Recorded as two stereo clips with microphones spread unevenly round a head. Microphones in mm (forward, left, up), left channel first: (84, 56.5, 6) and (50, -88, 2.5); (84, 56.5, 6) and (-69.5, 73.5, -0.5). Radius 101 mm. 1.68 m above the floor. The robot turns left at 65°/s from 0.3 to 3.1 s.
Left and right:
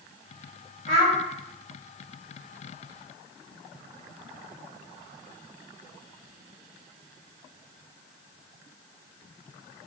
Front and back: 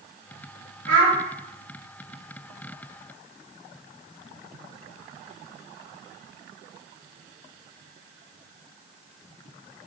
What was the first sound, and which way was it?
A child speaking, 150° right.